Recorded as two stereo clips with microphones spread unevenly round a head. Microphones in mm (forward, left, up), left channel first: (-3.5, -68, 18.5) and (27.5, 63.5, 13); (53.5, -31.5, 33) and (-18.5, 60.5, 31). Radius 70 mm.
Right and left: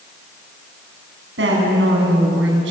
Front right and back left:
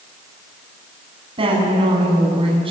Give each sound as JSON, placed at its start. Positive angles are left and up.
{"t": 1.4, "sound": "a woman speaking", "azimuth_deg": 80, "distance_m": 8.0}